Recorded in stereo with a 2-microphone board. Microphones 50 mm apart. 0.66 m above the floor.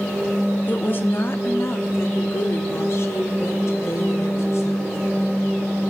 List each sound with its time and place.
0.7 s a woman speaking: 35° left (ahead or behind), 1.1 m; by 5.0 s 60° left (ahead or behind), 3.5 m